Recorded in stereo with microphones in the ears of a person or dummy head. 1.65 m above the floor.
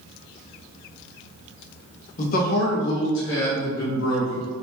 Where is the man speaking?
40° left (ahead or behind), 1.0 m; by 4.5 s 85° left, 1.9 m.